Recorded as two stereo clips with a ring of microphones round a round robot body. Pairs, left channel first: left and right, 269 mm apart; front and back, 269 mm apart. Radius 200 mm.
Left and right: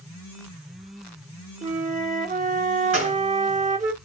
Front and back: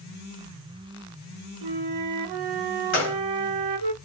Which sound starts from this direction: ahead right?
A gunshot, at 2.9 s.